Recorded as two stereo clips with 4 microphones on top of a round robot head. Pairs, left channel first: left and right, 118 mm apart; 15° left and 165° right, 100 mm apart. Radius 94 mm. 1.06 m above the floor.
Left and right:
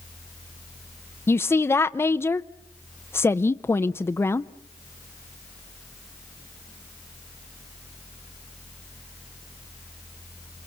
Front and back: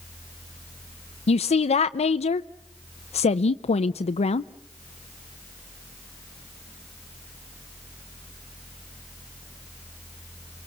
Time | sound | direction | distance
1.3 | a woman speaking | 20° left | 0.7 m